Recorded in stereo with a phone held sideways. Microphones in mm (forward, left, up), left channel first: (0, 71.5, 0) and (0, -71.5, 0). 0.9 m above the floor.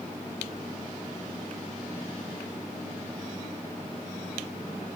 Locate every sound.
Only background noise.